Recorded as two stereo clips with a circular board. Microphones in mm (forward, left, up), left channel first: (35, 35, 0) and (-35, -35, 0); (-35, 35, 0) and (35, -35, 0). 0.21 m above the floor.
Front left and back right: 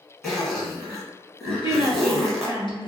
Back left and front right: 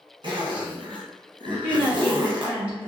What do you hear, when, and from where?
0.2 s a zipper: 40° right, 1.2 m
1.6 s a woman speaking: 30° left, 1.8 m